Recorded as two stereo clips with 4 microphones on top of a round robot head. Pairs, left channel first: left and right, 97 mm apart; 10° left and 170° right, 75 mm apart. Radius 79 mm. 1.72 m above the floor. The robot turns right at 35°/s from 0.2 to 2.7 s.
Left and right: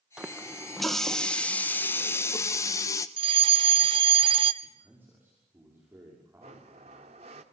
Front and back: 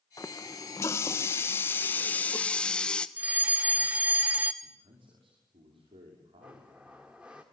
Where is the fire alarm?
105° right, 1.3 m.